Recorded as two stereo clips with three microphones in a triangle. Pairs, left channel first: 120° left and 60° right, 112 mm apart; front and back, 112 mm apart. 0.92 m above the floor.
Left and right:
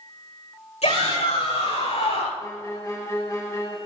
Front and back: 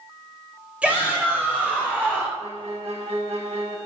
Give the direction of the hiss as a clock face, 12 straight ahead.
No hiss in this recording.